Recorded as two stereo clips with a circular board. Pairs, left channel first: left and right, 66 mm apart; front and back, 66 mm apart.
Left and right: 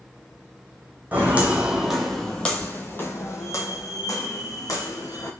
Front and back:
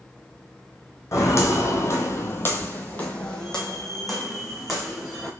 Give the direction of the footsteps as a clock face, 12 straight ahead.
1 o'clock.